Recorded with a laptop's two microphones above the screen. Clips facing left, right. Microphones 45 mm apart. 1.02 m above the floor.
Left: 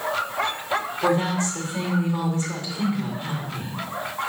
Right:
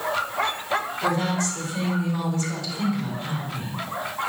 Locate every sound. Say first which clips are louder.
1.0 s a woman speaking: left 5 dB; 40° left (ahead or behind), 2 m